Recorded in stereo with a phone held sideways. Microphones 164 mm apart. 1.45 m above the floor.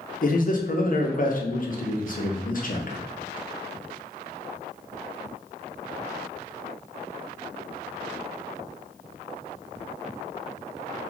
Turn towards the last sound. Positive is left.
turn(degrees=50)  # may be behind; listen again after turning